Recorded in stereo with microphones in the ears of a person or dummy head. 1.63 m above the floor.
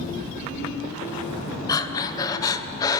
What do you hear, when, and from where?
1.7 s breathing: 20° left (ahead or behind), 1.2 m